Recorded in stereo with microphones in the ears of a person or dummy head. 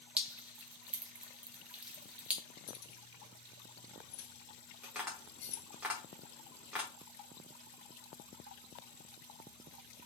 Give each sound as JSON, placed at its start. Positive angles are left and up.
{"t": 0.2, "sound": "dripping", "side_deg": -5, "distance_m": 0.6}
{"t": 2.7, "sound": "keys jangling", "side_deg": 70, "distance_m": 1.2}
{"t": 4.8, "sound": "tapping", "side_deg": -10, "distance_m": 1.2}